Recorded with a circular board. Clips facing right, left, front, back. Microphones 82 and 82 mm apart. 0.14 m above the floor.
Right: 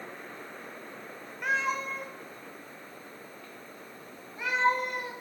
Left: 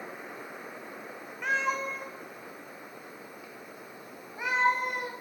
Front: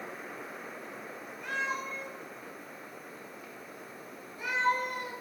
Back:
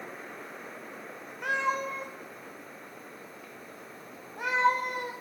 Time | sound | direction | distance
1.4 | a cat meowing | 175° right | 1.4 m